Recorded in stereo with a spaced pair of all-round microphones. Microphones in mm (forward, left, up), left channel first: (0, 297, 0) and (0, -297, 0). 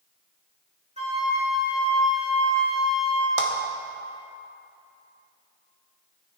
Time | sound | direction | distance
1.0 | a flute | 10° right (ahead or behind) | 1.8 m
3.4 | a clap | 70° right (ahead or behind) | 1.4 m